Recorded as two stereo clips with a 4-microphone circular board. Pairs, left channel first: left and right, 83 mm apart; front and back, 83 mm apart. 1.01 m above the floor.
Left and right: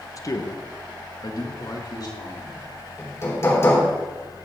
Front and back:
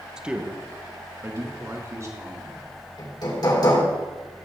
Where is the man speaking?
100° left, 1.0 m; by 2.7 s 130° left, 3 m.